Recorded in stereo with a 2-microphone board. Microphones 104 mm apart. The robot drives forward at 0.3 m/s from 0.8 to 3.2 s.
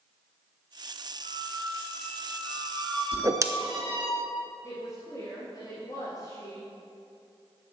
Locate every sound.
1.2 s a squeak: 45° right (ahead or behind), 3 m; by 4.1 s 50° right (ahead or behind), 2.5 m
3.1 s a whoosh: 35° right (ahead or behind), 0.5 m
4.6 s a woman speaking: 35° left (ahead or behind), 2.5 m